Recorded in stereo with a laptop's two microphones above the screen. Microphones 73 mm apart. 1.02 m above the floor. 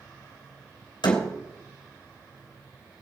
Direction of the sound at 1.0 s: 85° left.